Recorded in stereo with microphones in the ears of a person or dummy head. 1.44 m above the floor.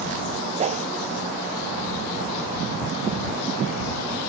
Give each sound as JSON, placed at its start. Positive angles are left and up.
{"t": 0.6, "sound": "a whoosh", "side_deg": -30}